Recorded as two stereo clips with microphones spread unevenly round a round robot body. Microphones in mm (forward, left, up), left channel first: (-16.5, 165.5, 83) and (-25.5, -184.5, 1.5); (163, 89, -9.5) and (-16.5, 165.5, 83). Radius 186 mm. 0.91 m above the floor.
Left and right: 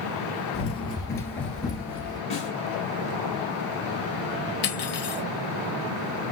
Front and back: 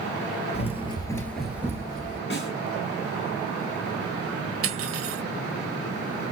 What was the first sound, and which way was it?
Running footsteps, 50° left.